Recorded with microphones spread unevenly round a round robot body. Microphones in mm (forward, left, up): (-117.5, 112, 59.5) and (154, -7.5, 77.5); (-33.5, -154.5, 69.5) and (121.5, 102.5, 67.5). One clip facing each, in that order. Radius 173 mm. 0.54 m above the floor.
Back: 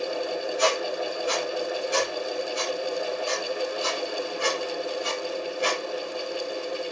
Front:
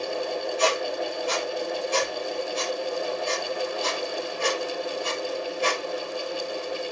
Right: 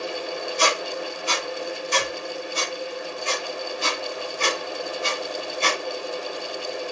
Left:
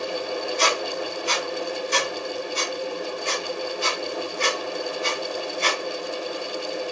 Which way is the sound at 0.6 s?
125° right.